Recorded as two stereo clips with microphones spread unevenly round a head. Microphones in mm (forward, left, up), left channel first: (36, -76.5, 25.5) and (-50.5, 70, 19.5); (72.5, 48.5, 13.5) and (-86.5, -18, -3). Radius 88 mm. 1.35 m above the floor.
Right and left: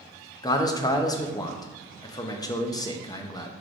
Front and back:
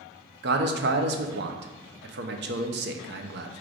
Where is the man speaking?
130° right, 0.5 m.